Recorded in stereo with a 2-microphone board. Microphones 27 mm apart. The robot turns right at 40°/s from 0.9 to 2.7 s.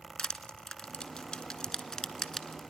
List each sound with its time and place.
0.2 s crushing: 40° left (ahead or behind), 1.1 m; by 2.6 s 20° left (ahead or behind), 1.1 m